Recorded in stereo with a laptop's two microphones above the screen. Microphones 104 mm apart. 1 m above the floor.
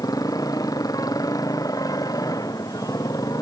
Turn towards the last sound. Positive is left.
turn(degrees=35)  # may be behind; listen again after turning